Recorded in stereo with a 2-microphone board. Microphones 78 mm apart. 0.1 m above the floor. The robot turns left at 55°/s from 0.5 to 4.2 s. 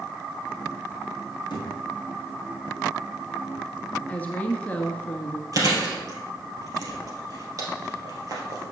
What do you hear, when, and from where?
1.5 s a thud: 70° left (ahead or behind), 2.5 m; by 1.7 s 75° left (ahead or behind), 2.5 m
4.1 s a woman speaking: 20° left (ahead or behind), 1.3 m
5.5 s chewing: 50° right (ahead or behind), 2.5 m